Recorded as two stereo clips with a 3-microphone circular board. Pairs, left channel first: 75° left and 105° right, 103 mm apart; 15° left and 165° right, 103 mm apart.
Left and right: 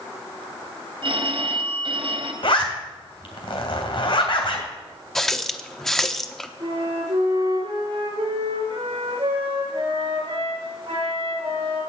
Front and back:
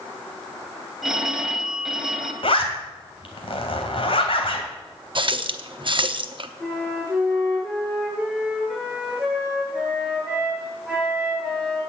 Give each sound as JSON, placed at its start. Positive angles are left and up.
{"t": 1.0, "sound": "a phone ringing", "azimuth_deg": -80, "distance_m": 2.5}
{"t": 2.4, "sound": "a zipper", "azimuth_deg": 45, "distance_m": 2.5}
{"t": 5.2, "sound": "a running tap", "azimuth_deg": 160, "distance_m": 0.8}
{"t": 6.6, "sound": "a flute", "azimuth_deg": -80, "distance_m": 5.5}